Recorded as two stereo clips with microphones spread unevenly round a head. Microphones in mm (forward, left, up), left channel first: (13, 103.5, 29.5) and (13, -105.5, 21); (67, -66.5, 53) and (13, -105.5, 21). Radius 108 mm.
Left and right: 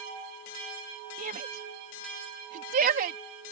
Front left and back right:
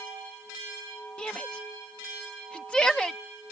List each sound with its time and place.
1.2 s a shout: 45° right